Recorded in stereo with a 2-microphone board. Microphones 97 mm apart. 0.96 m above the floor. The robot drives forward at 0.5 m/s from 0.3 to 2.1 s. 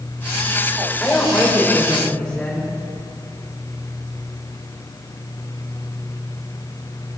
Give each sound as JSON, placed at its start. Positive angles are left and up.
{"t": 1.0, "sound": "a woman speaking", "side_deg": 15, "distance_m": 3.5}